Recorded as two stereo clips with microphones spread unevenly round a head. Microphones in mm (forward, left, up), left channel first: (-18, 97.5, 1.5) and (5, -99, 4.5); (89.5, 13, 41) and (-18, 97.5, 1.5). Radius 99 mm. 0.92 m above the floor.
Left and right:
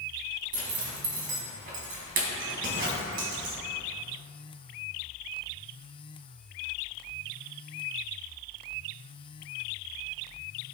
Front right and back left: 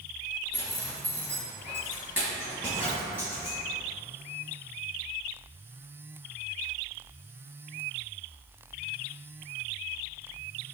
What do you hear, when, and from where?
0.5 s a zipper: 130° right, 1.0 m